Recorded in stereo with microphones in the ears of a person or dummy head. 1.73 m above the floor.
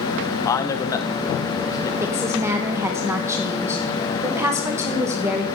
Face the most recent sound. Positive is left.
turn(degrees=-15)  # may be behind; listen again after turning